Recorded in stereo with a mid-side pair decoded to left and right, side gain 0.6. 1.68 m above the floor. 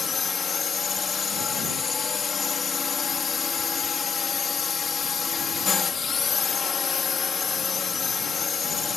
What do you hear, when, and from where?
0.0 s a drone: 35° left